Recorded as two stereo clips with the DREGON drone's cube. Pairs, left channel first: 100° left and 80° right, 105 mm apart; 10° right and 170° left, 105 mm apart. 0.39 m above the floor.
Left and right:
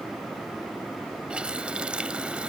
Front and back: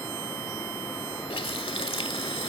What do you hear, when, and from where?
1.3 s a running tap: straight ahead